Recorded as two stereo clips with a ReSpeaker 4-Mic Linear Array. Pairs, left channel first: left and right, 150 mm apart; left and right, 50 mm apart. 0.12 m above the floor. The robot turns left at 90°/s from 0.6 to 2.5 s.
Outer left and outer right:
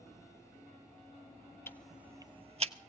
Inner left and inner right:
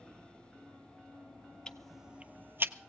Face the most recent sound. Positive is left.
turn(degrees=-50)  # may be behind; listen again after turning